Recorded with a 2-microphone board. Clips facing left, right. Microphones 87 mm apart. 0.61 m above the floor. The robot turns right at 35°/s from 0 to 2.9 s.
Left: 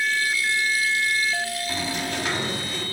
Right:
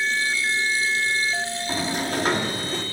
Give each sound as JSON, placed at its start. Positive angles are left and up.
{"t": 1.7, "sound": "a sliding door", "azimuth_deg": -125, "distance_m": 0.8}